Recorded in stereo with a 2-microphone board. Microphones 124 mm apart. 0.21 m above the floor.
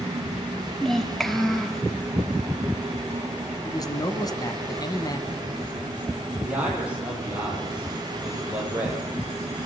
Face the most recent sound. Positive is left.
turn(degrees=-10)  # may be behind; listen again after turning